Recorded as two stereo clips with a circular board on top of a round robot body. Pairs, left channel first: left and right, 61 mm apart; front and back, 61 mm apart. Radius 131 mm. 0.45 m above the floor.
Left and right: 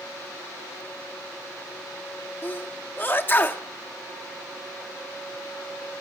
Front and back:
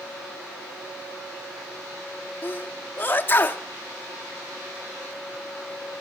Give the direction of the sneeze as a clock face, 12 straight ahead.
10 o'clock.